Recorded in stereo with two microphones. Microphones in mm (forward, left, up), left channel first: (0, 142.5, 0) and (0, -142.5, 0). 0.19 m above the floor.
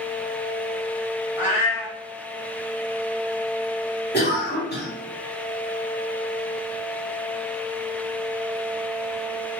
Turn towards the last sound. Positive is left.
turn(degrees=35)  # may be behind; listen again after turning